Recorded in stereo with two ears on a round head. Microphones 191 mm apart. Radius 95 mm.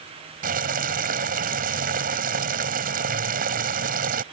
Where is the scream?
I don't hear a scream.